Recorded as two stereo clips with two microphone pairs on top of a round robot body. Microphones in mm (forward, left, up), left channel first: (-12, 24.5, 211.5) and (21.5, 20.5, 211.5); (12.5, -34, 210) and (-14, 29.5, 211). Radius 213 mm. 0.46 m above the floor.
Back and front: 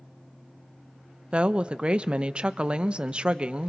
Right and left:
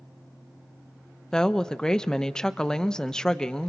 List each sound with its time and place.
1.3 s a woman speaking: straight ahead, 0.9 m